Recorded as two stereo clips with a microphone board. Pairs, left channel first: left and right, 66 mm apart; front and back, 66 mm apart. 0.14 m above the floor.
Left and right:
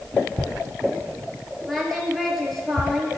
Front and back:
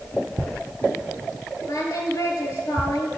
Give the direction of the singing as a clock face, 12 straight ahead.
12 o'clock.